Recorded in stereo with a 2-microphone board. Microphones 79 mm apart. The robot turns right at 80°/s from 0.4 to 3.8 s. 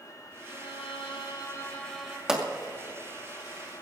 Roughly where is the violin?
Ahead left.